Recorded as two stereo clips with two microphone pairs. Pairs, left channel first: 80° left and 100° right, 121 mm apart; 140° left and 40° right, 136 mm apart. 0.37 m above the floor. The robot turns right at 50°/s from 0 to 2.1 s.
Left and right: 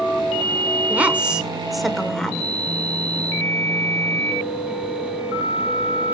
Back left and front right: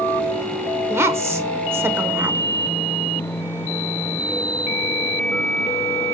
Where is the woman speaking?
55° right, 0.8 m; by 2.5 s 5° left, 0.8 m.